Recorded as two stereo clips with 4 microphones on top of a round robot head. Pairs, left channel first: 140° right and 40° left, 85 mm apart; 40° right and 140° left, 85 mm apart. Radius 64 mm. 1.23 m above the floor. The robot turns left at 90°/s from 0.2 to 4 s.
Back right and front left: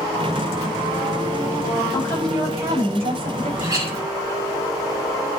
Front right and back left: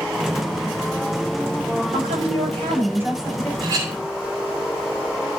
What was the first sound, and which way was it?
A woman speaking, 170° left.